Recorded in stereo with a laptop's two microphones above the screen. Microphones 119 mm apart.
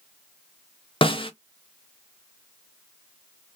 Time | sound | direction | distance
1.0 | a snare drum | 50° left (ahead or behind) | 0.5 m